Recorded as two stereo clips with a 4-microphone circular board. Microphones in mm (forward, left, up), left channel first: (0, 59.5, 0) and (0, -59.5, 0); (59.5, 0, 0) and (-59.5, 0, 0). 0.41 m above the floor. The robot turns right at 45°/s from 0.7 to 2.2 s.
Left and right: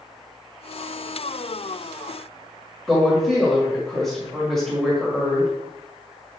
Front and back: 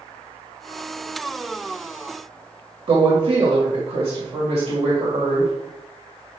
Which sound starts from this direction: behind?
A woman speaking, at 2.9 s.